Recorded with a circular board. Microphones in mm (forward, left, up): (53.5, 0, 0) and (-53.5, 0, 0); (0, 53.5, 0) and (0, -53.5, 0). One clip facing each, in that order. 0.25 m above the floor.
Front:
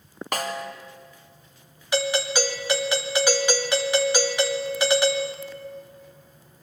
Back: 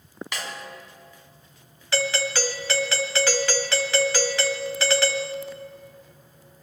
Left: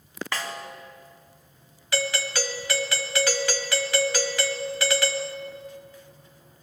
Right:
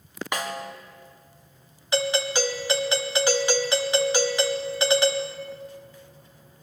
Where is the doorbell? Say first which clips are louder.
Front 2 dB, right 4 dB; 50° right, 1.6 m.